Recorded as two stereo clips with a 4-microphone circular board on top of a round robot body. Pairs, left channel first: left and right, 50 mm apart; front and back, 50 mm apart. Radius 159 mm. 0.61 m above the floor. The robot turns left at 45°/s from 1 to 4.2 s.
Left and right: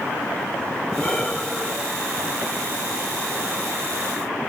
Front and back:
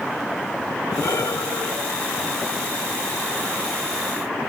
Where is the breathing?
25° left, 2.5 m; by 4.3 s 120° right, 2.5 m.